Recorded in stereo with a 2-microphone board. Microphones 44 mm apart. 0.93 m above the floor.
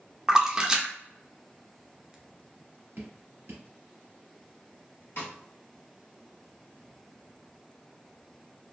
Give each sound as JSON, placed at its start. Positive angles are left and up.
{"t": 0.3, "sound": "a splash", "side_deg": -15, "distance_m": 0.5}
{"t": 3.0, "sound": "dripping", "side_deg": -60, "distance_m": 1.5}
{"t": 5.2, "sound": "a snare drum", "side_deg": 55, "distance_m": 1.0}